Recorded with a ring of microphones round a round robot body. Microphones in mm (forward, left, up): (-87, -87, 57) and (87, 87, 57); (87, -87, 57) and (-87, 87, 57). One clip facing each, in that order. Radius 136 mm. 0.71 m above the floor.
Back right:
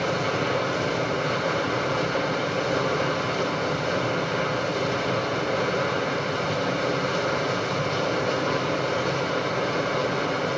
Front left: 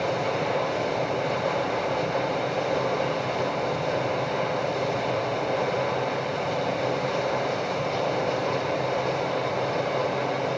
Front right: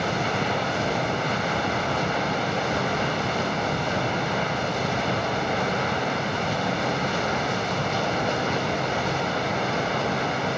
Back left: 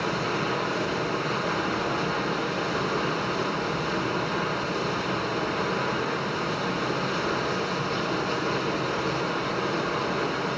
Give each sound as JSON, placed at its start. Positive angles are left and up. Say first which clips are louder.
{"t": 0.0, "sound": "running water", "louder": "back right 1 dB, front right 1 dB", "azimuth_deg": -60, "distance_m": 2.5}